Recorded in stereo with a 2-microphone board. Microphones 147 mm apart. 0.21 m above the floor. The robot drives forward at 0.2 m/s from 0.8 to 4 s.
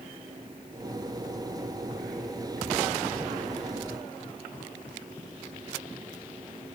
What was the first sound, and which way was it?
Only background noise.